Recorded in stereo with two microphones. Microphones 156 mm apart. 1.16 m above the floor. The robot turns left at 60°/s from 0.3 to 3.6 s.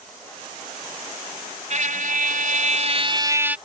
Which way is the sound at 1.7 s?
60° right.